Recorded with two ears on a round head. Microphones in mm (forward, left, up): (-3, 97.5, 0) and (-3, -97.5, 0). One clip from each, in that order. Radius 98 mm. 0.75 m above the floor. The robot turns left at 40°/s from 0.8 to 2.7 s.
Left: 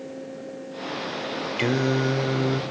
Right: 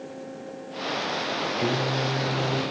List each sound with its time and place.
1.6 s singing: 55° left, 1.6 m; by 2.6 s 15° left, 1.6 m